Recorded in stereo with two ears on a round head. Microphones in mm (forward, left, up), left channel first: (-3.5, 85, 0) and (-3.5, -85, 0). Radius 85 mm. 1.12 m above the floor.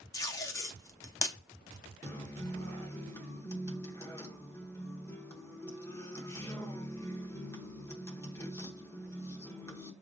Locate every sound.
0.1 s tape being pulled: 20° left (ahead or behind), 0.6 m
2.0 s a guitar: 15° left (ahead or behind), 0.9 m